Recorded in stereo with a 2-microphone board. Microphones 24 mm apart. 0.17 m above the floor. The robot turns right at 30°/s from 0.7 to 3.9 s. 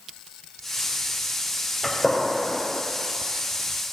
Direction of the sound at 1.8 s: 10° right (ahead or behind).